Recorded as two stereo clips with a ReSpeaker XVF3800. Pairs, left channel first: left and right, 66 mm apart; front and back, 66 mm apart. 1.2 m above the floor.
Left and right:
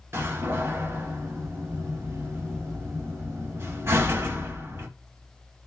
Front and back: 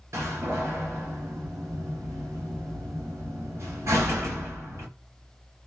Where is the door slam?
135° right, 2 m.